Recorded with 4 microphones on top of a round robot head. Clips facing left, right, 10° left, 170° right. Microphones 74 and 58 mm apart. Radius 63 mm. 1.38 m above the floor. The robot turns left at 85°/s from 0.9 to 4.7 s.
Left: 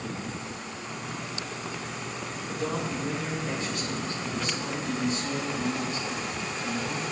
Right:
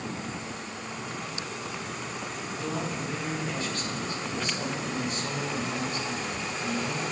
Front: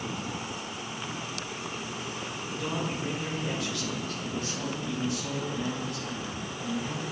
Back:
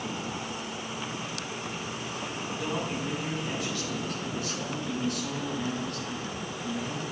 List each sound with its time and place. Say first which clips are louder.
2.5 s a man speaking: left 2 dB, even; 120° left, 2.5 m; by 7.0 s 70° right, 2.5 m